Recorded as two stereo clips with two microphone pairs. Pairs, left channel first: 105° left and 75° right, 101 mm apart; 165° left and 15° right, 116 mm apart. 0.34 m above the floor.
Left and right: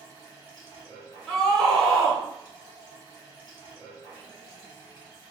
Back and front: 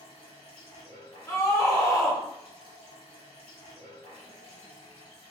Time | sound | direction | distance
0.0 | running water | 145° left | 1.6 m
1.3 | a scream | 175° right | 0.9 m